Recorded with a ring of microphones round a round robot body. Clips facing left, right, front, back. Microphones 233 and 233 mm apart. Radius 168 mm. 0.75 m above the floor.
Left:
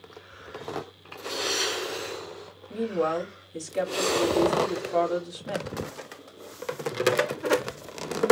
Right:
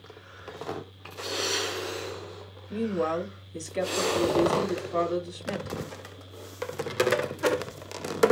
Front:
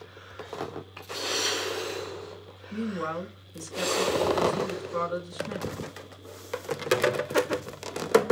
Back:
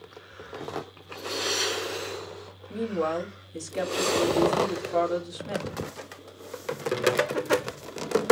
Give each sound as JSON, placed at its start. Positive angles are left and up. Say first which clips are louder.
{"t": 2.7, "sound": "a woman speaking", "louder": "left 1 dB, back 4 dB", "azimuth_deg": 180, "distance_m": 2.5}